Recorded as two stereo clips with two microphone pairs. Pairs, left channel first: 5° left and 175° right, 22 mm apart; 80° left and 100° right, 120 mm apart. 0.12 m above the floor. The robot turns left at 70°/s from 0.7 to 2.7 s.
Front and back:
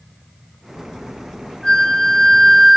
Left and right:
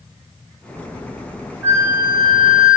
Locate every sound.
1.6 s a flute: 30° right, 1.5 m; by 2.8 s 105° right, 1.5 m